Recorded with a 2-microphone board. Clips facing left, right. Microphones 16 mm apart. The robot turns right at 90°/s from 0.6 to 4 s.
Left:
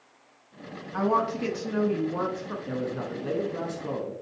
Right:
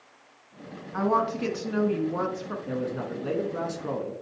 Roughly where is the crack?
I don't hear a crack.